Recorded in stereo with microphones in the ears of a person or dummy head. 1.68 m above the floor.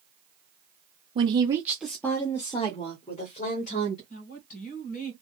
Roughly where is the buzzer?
I don't hear a buzzer.